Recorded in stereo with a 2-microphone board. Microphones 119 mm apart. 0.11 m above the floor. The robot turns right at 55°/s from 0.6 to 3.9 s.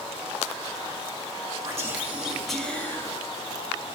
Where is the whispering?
45° right, 2 m; by 3.1 s 35° left, 2 m.